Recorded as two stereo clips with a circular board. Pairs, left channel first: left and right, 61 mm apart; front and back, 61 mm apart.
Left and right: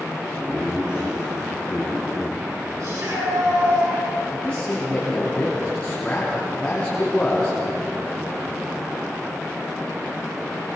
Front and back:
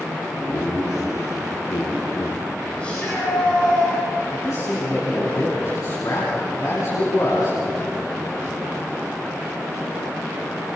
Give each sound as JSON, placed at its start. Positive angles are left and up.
{"t": 0.4, "sound": "laughter", "azimuth_deg": -10, "distance_m": 9.5}
{"t": 2.8, "sound": "a shout", "azimuth_deg": -70, "distance_m": 7.0}
{"t": 4.3, "sound": "a man speaking", "azimuth_deg": 20, "distance_m": 4.5}